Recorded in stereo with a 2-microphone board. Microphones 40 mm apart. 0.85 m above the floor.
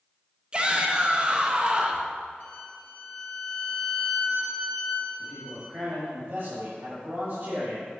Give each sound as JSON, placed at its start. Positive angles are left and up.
{"t": 0.5, "sound": "a shout", "side_deg": -25, "distance_m": 0.8}
{"t": 2.4, "sound": "a violin", "side_deg": 50, "distance_m": 2.0}
{"t": 5.2, "sound": "a man speaking", "side_deg": -60, "distance_m": 1.7}